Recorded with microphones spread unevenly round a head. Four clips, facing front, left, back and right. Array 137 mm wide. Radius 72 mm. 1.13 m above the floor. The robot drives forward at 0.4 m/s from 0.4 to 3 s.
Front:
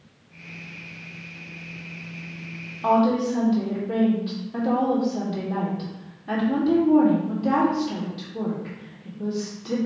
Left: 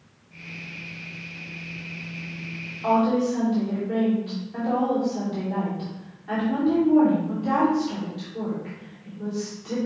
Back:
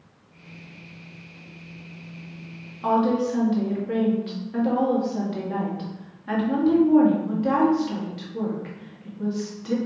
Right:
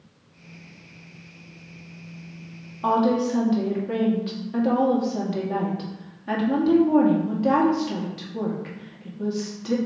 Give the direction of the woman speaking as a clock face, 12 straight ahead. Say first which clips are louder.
Even, front 1 dB; 3 o'clock.